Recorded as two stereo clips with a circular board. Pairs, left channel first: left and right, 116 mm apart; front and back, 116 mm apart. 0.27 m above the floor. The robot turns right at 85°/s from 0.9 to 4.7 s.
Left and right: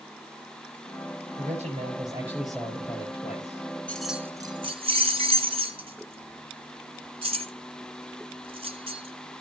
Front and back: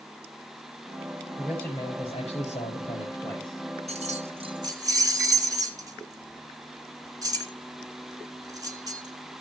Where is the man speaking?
100° right, 5 m; by 3.8 s 105° left, 5 m.